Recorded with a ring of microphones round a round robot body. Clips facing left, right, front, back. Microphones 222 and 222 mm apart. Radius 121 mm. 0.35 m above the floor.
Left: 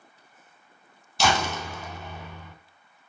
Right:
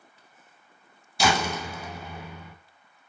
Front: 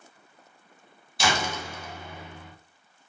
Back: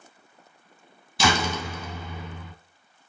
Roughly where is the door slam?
Behind.